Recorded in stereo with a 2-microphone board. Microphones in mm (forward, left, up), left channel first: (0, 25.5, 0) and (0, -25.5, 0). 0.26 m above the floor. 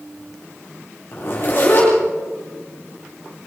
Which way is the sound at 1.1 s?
45° left (ahead or behind).